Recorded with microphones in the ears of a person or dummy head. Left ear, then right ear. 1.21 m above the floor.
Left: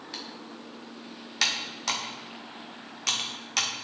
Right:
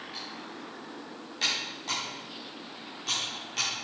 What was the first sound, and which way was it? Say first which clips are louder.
Typing on a keyboard: left 3 dB; 45° left (ahead or behind).